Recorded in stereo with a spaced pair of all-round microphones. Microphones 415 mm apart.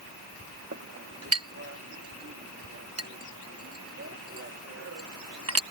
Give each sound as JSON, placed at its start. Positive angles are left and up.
{"t": 0.7, "sound": "a clink", "side_deg": -35}